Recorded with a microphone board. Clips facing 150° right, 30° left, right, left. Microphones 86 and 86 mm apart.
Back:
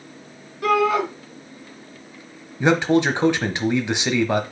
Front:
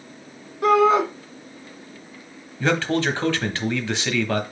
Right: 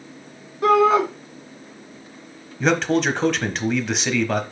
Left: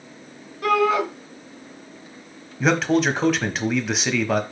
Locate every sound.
0.6 s a shout: 30° right, 1.9 m
2.6 s a man speaking: 175° left, 1.0 m